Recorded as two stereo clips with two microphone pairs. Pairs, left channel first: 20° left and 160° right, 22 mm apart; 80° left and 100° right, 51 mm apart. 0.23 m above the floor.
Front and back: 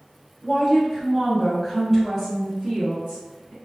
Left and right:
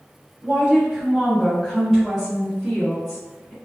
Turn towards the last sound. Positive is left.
turn(degrees=165)